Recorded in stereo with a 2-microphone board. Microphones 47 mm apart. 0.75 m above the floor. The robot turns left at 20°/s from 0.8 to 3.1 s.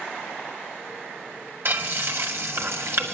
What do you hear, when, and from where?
1.6 s frying: 45° right (ahead or behind), 2 m; by 3.1 s 60° right (ahead or behind), 2 m